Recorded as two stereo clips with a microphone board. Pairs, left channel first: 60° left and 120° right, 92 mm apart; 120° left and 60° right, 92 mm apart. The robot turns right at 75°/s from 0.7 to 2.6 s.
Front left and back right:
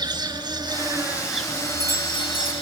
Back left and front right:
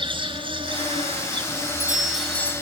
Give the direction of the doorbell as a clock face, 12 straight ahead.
11 o'clock.